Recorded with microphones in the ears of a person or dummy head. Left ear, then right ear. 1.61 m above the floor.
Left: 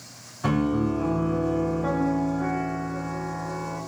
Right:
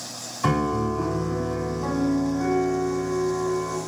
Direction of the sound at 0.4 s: 15° right (ahead or behind).